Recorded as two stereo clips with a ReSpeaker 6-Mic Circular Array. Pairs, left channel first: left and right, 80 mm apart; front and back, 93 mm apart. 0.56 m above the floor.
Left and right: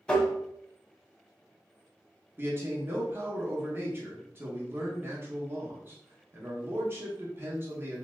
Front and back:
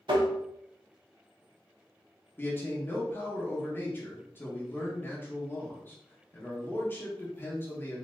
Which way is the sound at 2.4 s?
50° right.